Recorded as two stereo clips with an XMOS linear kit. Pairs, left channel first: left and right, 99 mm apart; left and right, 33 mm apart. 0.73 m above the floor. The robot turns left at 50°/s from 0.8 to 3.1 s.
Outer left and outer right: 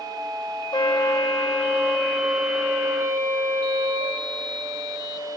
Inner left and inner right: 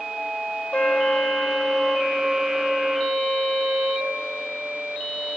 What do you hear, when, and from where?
0.7 s a trumpet: 65° left, 1.3 m; by 4.2 s 50° right, 1.3 m